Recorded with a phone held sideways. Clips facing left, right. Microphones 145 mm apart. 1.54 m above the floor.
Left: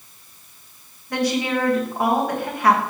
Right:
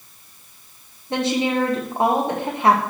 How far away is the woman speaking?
About 1.6 m.